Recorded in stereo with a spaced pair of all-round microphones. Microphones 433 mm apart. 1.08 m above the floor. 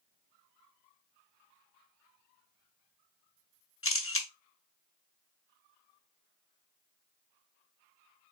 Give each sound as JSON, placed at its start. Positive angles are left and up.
{"t": 3.8, "sound": "a camera shutter", "side_deg": 30, "distance_m": 0.7}